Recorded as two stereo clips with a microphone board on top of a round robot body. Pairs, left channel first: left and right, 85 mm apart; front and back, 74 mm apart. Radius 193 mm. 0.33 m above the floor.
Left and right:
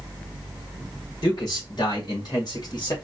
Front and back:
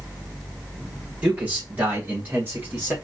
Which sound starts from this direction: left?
A man speaking, at 1.2 s.